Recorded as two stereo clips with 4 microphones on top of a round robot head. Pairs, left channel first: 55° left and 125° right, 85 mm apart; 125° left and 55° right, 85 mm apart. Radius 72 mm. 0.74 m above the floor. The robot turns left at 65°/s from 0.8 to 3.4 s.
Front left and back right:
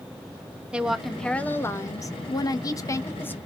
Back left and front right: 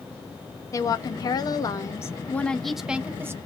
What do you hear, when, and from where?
0.7 s a woman speaking: 160° left, 0.9 m; by 3.4 s 10° right, 0.9 m